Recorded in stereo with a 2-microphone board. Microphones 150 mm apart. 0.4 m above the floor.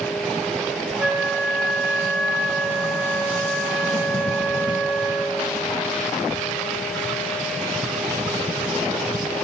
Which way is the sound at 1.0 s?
5° right (ahead or behind).